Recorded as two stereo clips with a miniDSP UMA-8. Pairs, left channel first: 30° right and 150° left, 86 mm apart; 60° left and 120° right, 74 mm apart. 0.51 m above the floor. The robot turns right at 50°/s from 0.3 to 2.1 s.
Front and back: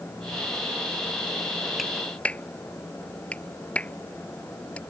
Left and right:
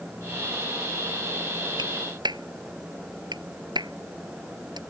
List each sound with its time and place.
1.8 s a clap: 120° right; by 4.8 s 105° right